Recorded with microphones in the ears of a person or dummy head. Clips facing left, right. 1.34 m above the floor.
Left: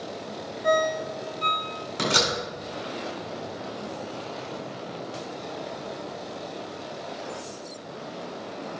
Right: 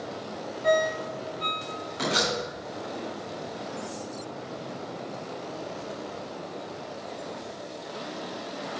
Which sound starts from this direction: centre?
A ringtone, at 0.6 s.